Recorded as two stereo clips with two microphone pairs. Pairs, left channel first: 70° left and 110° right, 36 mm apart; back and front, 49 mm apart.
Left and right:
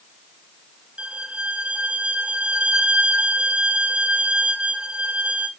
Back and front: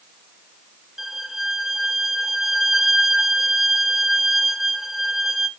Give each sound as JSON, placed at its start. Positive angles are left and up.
{"t": 1.0, "sound": "a violin", "azimuth_deg": -80, "distance_m": 1.0}